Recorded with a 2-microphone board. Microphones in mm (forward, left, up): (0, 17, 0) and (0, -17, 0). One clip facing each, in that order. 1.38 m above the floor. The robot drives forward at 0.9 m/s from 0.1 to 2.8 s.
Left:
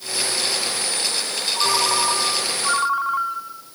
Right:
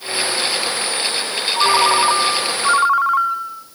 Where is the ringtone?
20° right (ahead or behind), 1.1 m.